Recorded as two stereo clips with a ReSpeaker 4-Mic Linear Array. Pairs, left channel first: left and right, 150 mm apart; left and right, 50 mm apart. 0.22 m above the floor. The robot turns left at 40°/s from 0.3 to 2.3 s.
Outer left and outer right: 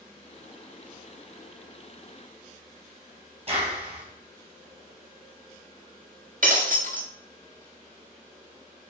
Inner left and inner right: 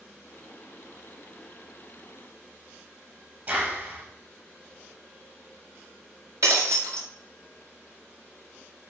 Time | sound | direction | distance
3.5 | a clap | 40° right (ahead or behind) | 3.5 m
6.4 | breaking glass | 60° right (ahead or behind) | 2.0 m